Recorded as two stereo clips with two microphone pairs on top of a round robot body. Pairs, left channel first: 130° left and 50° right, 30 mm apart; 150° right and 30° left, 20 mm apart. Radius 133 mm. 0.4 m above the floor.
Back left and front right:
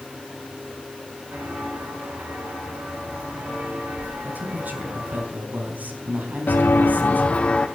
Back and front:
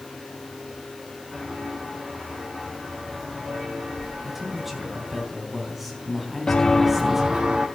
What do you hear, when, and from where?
1.3 s footsteps: 50° right, 8.5 m; by 5.2 s 30° right, 9.5 m
4.2 s a man speaking: 50° right, 4.5 m
6.5 s footsteps: 160° left, 0.7 m; by 7.7 s 75° left, 1.2 m